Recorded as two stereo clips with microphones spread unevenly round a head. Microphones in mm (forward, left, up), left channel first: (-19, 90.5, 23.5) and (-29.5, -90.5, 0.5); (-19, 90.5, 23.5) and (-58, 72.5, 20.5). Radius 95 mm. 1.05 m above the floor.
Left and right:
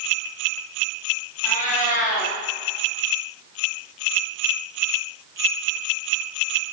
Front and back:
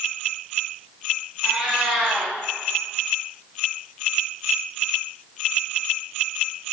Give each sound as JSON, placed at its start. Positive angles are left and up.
{"t": 1.4, "sound": "a cat meowing", "azimuth_deg": 130, "distance_m": 1.0}